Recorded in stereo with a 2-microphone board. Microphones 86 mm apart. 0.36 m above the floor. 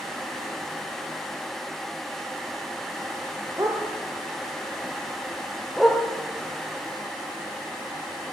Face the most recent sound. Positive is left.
turn(degrees=0)  # may be behind; listen again after turning